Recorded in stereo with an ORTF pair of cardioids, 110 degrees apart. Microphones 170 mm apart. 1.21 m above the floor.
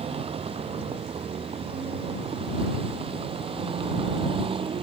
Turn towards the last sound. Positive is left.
turn(degrees=-35)